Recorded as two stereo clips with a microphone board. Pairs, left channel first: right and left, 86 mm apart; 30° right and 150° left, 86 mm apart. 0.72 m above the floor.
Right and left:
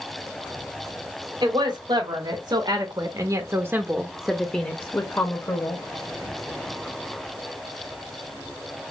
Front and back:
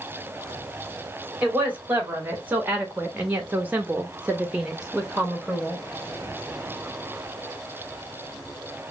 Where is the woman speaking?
80° left, 1.6 m; by 5.8 s 120° right, 1.0 m.